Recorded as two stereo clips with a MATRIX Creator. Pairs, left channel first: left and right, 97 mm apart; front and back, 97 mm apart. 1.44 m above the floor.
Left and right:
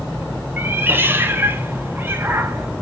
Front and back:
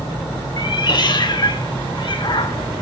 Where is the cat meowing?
25° right, 1.3 m.